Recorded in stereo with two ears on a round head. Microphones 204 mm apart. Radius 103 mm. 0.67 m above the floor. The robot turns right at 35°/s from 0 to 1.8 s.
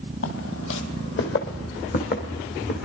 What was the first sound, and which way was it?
Footsteps, 65° left (ahead or behind).